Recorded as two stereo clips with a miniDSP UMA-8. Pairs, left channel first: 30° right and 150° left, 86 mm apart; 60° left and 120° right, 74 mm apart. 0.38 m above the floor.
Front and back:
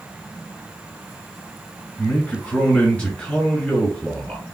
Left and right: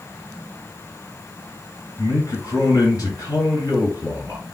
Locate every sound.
2.0 s a man speaking: 40° left, 1.9 m